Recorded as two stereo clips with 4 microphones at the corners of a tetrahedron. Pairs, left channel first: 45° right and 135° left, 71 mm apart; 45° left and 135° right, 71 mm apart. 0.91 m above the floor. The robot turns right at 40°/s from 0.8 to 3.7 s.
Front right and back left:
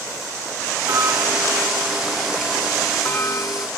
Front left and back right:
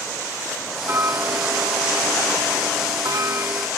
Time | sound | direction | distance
0.9 | ticking | 170° left | ?